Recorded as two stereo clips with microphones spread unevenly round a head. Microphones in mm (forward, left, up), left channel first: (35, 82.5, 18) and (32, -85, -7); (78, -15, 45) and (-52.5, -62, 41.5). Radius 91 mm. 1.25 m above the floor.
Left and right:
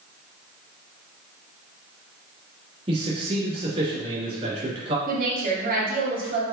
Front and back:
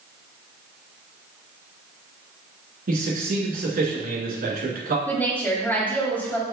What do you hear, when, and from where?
2.9 s a man speaking: 150° right, 3 m
5.1 s a woman speaking: 60° right, 2.0 m